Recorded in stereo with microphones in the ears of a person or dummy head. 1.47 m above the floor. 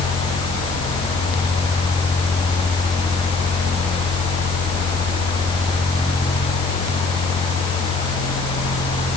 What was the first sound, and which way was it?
Only background noise.